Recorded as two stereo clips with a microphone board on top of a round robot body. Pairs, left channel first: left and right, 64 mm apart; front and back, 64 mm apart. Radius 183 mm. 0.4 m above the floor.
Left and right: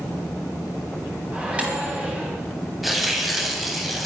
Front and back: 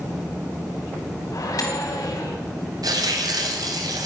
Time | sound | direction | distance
1.3 | a microwave | 20° right | 3 m
2.8 | tearing paper | straight behind | 2 m